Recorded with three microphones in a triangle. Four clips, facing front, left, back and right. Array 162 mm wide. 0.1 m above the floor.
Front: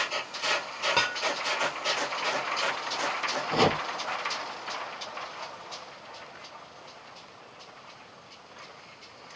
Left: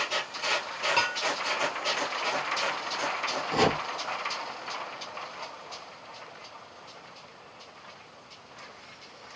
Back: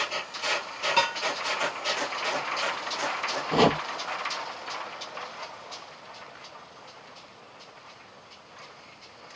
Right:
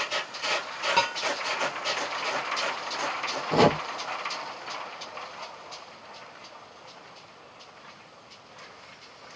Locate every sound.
1.0 s dishes clattering: 30° right, 1.2 m
3.5 s chopping: 120° right, 0.6 m